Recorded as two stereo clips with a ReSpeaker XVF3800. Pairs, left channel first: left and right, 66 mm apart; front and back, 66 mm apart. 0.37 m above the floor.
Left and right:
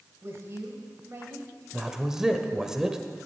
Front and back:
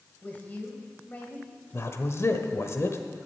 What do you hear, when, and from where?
0.2 s a woman speaking: 55° right, 2 m
1.7 s a man speaking: 10° right, 1.1 m